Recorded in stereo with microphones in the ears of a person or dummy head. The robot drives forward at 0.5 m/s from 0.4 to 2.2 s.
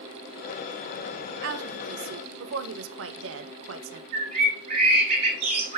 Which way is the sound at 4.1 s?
50° right (ahead or behind).